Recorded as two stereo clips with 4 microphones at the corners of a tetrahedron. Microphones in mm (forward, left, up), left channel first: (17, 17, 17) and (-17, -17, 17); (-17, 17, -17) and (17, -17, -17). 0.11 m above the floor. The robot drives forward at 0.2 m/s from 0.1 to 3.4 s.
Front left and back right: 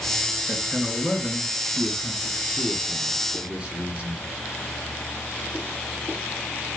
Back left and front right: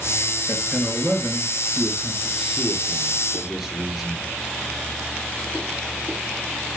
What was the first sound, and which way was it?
A man speaking, 70° right.